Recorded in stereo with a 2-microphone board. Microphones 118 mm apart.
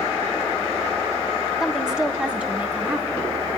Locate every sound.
1.6 s a woman speaking: 5° right (ahead or behind), 1.9 m; by 3.2 s 15° right (ahead or behind), 4 m